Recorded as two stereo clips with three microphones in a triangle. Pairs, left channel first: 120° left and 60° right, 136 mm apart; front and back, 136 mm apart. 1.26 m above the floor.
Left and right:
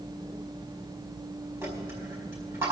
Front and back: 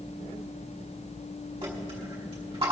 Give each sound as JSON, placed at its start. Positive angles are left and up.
{"t": 1.6, "sound": "a dropped coin", "azimuth_deg": -130, "distance_m": 4.0}